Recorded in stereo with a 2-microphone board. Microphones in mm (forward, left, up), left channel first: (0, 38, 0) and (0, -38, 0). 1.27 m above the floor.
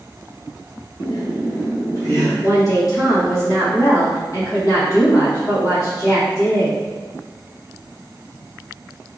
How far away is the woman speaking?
About 1.3 m.